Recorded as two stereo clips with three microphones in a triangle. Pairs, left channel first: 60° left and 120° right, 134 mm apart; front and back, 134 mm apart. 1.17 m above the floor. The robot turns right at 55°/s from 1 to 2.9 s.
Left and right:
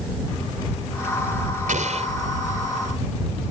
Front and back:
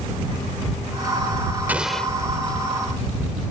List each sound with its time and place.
1.7 s an explosion: 105° right; by 2.1 s 80° right